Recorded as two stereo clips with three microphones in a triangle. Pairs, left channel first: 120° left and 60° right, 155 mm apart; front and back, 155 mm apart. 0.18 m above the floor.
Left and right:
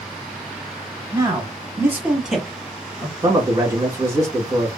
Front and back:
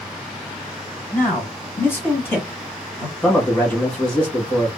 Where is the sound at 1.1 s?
70° right, 1.2 m; by 3.1 s 60° left, 1.3 m.